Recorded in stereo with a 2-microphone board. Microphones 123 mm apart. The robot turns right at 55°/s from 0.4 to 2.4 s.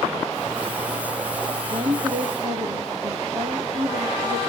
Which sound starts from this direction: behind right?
A woman speaking, at 1.7 s.